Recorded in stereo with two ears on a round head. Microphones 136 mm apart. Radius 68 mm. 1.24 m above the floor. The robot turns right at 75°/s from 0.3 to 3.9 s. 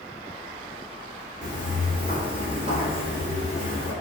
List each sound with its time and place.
1.4 s footsteps: 25° right (ahead or behind), 1.7 m; by 3.9 s 35° right (ahead or behind), 1.8 m